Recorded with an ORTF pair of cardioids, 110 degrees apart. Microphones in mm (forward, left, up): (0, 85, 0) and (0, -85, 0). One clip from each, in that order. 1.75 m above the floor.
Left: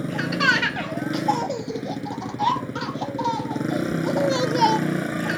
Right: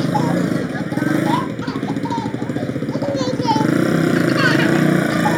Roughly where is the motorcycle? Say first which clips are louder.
Right 2 dB; ahead right.